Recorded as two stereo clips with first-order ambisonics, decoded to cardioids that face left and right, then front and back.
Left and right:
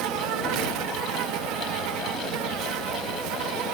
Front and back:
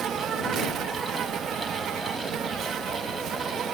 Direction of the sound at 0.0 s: 120° right.